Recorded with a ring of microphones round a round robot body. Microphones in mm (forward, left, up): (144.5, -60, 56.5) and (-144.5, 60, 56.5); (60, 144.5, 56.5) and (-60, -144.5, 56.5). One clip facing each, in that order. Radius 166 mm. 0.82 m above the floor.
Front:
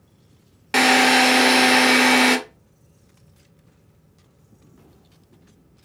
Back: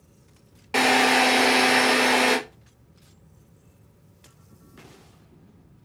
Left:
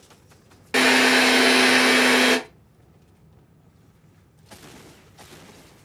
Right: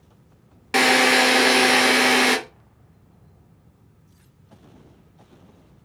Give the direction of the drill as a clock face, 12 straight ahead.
1 o'clock.